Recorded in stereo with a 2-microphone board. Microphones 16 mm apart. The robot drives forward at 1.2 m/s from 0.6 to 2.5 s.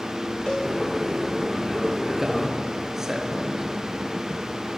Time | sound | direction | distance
0.5 | a cowbell | 65° left (ahead or behind) | 4.5 m
2.2 | a man speaking | 25° right (ahead or behind) | 6 m